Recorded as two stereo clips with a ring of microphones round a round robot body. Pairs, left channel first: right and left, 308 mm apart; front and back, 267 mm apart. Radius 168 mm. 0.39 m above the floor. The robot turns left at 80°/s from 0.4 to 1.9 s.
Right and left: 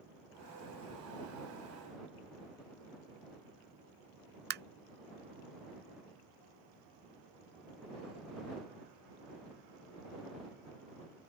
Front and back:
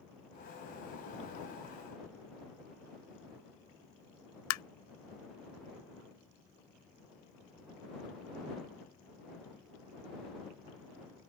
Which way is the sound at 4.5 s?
30° left.